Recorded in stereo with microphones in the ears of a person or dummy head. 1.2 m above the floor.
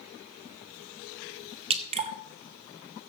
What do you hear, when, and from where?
1.7 s dripping: 35° right (ahead or behind), 1.2 m